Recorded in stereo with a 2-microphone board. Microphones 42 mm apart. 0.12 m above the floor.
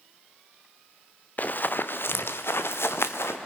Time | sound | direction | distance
1.4 | running footsteps | 45° left (ahead or behind) | 1.0 m